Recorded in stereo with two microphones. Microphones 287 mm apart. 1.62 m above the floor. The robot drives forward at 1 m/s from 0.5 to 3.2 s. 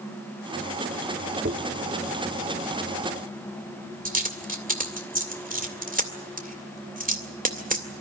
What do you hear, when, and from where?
1.4 s a dropped coin: 40° right (ahead or behind), 1.5 m; by 8.0 s 30° right (ahead or behind), 2 m